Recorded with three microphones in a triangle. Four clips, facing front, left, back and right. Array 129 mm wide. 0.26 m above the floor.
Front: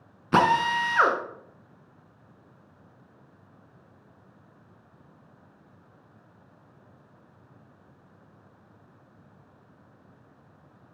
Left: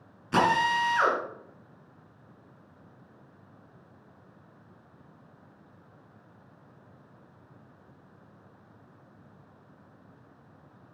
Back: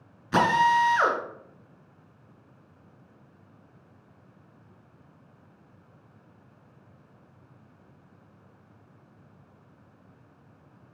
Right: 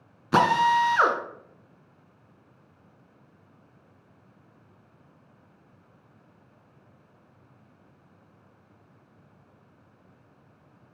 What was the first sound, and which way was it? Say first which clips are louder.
A drill: right 4 dB, back 1 dB; 40° right.